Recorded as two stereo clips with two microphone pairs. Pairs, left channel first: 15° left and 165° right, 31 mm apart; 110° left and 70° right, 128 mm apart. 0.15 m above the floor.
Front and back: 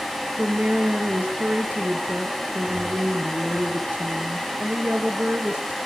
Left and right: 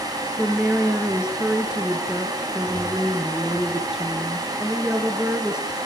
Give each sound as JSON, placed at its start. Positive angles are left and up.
{"t": 0.4, "sound": "a woman speaking", "azimuth_deg": -150, "distance_m": 2.5}